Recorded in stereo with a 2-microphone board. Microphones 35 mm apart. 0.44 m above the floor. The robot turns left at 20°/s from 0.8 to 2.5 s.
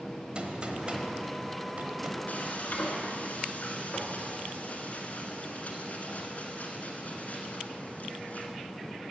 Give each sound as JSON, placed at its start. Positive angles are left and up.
{"t": 0.3, "sound": "a gunshot", "side_deg": -30, "distance_m": 1.0}
{"t": 2.3, "sound": "frying", "side_deg": 55, "distance_m": 1.3}